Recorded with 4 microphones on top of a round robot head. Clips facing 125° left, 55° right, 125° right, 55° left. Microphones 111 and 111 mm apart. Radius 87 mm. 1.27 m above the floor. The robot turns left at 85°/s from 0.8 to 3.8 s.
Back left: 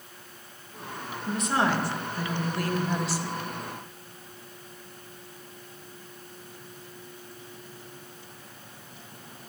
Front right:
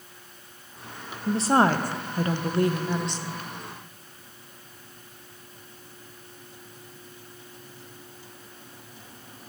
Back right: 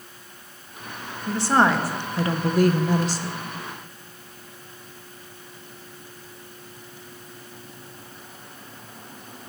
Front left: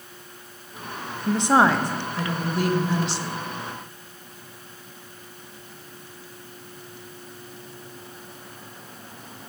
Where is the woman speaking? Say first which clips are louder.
Front right 5 dB, front left 1 dB; 5° left, 0.5 m; by 3.4 s 175° right, 0.5 m.